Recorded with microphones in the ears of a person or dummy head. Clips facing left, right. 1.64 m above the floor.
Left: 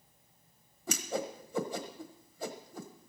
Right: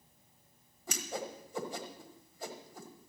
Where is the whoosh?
75° left (ahead or behind), 1.3 m.